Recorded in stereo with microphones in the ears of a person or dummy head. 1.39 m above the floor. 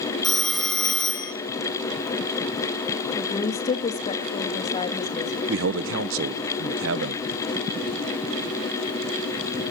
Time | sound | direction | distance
0.2 | a phone ringing | 5° left (ahead or behind) | 0.5 m
3.2 | a woman speaking | 25° left (ahead or behind) | 1.6 m
5.5 | a man speaking | 70° right (ahead or behind) | 1.1 m